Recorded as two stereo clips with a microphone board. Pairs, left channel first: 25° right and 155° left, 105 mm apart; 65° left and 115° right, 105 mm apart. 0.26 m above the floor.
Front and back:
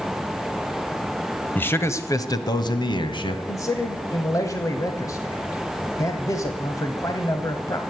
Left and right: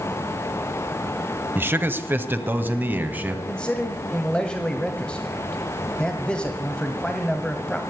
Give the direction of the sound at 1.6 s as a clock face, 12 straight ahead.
2 o'clock.